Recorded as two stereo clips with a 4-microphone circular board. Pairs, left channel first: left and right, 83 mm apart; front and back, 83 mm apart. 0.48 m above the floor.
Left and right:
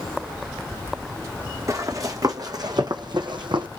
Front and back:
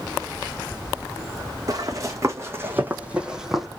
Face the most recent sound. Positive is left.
turn(degrees=-90)